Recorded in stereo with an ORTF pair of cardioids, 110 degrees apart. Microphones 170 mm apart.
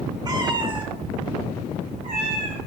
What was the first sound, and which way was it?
A cat meowing, 25° right.